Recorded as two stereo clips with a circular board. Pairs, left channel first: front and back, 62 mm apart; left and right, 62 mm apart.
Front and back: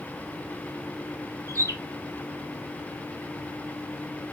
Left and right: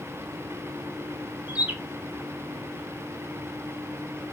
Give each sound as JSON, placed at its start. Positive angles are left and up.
{"t": 1.5, "sound": "a bird", "azimuth_deg": -155, "distance_m": 0.6}